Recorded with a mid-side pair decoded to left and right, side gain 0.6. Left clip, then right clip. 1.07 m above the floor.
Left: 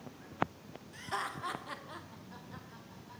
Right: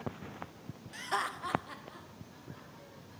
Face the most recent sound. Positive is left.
turn(degrees=70)